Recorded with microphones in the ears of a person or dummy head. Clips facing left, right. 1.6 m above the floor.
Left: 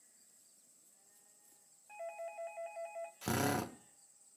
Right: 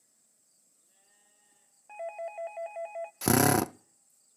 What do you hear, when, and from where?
1.9 s a doorbell: 55° right (ahead or behind), 0.8 m
3.2 s a drill: 70° right (ahead or behind), 0.5 m